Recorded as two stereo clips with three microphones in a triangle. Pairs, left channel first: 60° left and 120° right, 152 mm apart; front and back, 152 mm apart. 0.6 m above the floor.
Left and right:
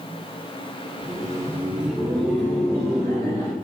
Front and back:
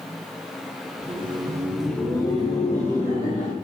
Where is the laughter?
170° right, 0.7 m; by 3.5 s straight ahead, 1.2 m.